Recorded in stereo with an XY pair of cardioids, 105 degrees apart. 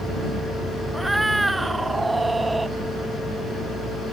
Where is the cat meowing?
10° right; by 2.7 s 20° right.